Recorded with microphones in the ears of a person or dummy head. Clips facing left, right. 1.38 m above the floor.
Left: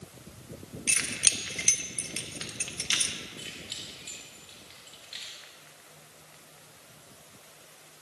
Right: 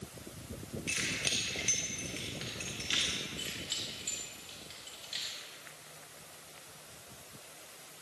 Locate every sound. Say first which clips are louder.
0.9 s keys jangling: even; 65° left (ahead or behind), 1.2 m
3.4 s keys jangling: right 1 dB; centre (ahead or behind), 2.5 m